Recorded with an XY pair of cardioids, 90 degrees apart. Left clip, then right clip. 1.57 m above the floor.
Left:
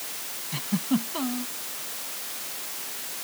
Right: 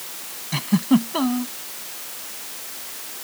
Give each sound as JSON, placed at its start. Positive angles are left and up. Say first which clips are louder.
{"t": 0.5, "sound": "a giggle", "louder": "right 8 dB", "azimuth_deg": -60}